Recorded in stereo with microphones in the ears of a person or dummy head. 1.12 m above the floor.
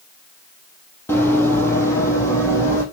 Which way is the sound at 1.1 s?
15° left (ahead or behind).